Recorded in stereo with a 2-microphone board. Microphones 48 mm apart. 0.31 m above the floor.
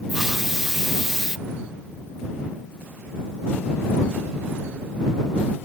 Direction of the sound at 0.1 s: 10° right (ahead or behind).